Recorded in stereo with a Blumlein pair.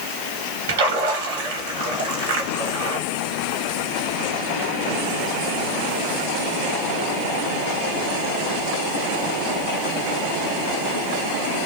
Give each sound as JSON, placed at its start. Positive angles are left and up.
{"t": 0.7, "sound": "a splash", "azimuth_deg": -65, "distance_m": 1.7}